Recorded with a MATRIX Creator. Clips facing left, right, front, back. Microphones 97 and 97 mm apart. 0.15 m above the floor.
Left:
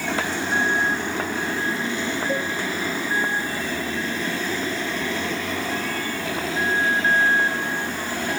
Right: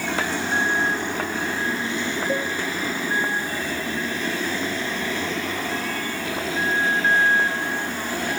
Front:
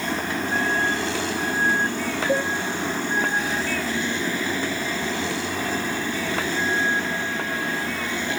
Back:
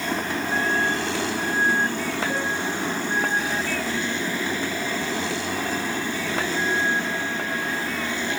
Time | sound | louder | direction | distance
2.3 | a cowbell | right 2 dB, front 4 dB | 5° right | 6 m